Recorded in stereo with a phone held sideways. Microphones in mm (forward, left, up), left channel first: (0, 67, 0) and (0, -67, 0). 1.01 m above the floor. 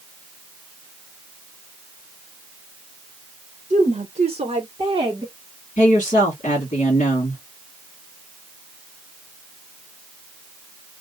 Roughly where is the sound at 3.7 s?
Right.